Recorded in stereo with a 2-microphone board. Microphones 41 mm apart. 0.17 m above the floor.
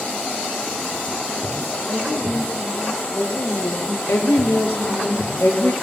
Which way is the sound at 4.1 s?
75° left (ahead or behind).